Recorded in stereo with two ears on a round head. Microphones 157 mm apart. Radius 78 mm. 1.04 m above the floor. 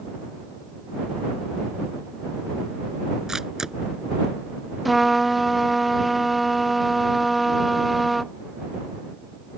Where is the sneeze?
I don't hear a sneeze.